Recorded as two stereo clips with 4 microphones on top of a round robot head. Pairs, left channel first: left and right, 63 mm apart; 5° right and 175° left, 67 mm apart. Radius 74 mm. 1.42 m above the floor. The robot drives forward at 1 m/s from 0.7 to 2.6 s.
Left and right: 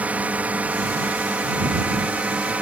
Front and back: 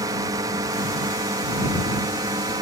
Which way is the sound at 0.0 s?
155° right.